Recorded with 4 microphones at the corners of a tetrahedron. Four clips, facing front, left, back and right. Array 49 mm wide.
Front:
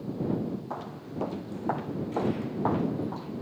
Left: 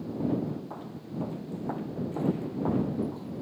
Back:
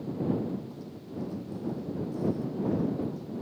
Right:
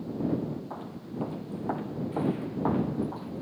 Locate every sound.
0.7 s footsteps: 5° right; by 3.4 s 30° right